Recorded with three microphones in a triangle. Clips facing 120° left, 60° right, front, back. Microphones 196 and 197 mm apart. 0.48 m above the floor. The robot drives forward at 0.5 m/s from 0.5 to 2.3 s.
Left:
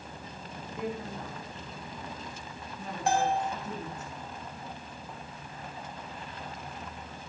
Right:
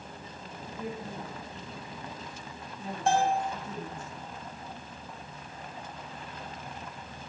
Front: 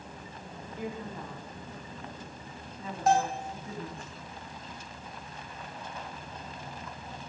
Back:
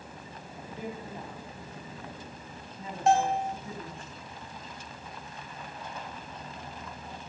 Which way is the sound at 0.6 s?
110° left.